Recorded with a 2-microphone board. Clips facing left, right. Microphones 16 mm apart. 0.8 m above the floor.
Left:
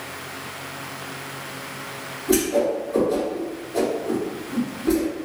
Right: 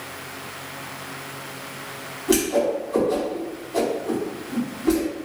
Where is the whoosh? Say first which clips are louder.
Even; 50° right (ahead or behind), 1.4 m.